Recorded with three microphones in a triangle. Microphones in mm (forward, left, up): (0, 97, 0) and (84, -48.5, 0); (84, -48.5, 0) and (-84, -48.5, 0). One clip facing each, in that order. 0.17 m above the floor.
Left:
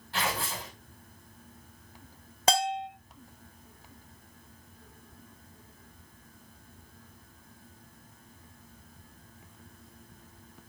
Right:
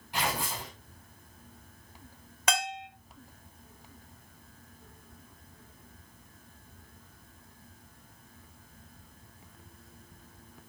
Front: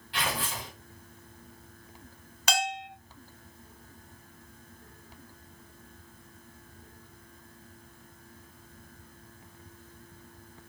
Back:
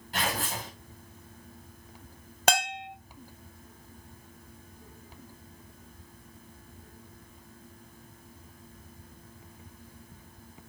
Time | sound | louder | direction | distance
0.1 | tearing paper | even, back 1 dB | 135° right | 6.5 m
2.5 | a bell | left 5 dB, back 3 dB | 170° left | 0.7 m